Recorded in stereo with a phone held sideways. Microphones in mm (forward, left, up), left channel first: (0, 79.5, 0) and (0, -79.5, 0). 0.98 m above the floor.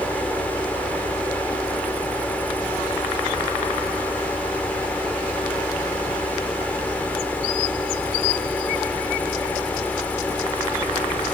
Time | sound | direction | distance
0.0 | a fan | 10° left (ahead or behind) | ?